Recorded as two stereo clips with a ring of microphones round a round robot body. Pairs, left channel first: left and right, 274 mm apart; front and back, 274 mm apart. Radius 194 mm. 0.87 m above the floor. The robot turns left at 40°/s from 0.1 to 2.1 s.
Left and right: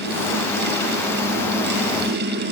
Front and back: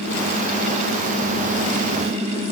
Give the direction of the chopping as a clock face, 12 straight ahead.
No chopping in this recording.